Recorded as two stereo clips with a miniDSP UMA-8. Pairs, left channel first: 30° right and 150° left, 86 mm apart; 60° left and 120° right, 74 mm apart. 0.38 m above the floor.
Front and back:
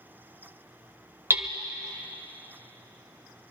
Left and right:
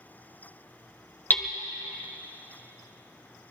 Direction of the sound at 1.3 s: 110° left.